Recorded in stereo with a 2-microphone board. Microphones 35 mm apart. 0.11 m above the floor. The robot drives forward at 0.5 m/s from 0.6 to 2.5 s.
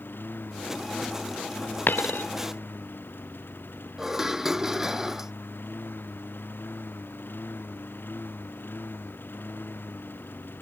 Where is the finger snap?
No finger snap in this recording.